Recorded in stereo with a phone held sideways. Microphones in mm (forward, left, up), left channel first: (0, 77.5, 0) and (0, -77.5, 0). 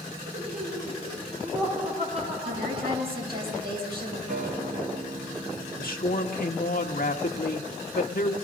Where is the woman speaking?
85° right, 6 m.